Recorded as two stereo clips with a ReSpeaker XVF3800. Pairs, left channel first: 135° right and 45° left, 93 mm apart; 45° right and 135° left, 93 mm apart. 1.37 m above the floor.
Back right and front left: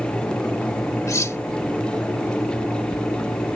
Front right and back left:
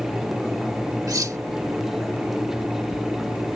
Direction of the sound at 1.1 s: 175° left.